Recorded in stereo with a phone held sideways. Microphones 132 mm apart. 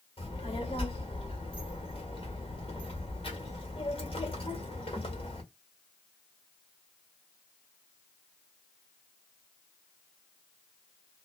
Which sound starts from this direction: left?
A child speaking, at 0.2 s.